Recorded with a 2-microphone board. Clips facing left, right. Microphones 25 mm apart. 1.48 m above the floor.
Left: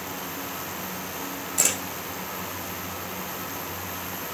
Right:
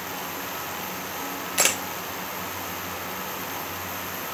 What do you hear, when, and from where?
1.6 s a camera shutter: 40° right (ahead or behind), 1.1 m